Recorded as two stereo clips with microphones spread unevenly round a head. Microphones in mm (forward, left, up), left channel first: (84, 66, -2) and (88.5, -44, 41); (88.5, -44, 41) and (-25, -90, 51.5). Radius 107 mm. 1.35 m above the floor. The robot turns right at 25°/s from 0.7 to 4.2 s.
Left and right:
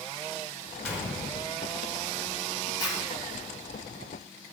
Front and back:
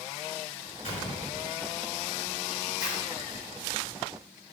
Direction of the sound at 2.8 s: 35° left.